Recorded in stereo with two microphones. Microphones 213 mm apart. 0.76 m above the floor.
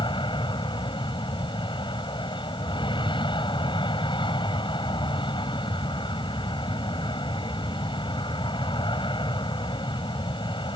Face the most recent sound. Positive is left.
turn(degrees=20)  # may be behind; listen again after turning